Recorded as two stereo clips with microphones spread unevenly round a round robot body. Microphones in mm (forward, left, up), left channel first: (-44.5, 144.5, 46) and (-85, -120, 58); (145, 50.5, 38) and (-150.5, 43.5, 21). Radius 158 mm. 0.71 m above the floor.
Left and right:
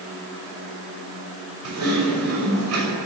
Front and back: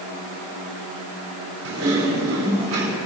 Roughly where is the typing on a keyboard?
Behind right.